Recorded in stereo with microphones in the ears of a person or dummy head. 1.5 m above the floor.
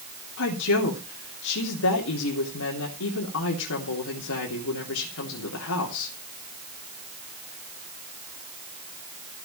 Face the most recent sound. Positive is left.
turn(degrees=80)